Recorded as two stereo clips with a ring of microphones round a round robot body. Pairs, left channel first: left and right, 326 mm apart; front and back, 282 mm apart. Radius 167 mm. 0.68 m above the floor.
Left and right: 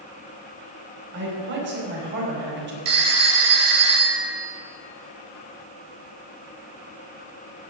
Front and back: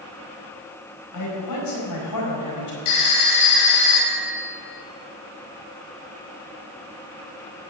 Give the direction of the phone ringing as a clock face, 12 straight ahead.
2 o'clock.